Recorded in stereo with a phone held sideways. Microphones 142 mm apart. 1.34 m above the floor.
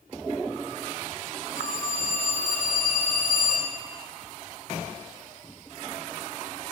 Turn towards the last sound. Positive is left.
turn(degrees=15)  # may be behind; listen again after turning